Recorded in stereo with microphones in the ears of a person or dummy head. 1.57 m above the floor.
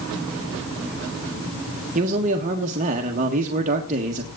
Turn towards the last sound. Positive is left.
turn(degrees=-40)  # may be behind; listen again after turning